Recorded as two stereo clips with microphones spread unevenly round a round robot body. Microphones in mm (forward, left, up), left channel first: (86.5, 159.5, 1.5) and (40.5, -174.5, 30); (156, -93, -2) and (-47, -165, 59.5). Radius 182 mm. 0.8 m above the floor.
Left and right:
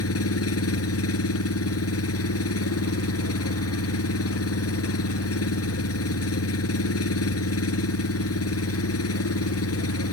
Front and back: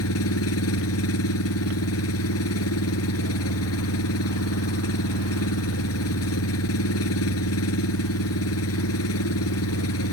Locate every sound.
0.0 s an engine running: 35° left